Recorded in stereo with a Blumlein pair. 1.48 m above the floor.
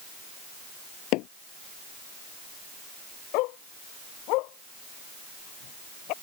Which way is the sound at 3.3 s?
40° left.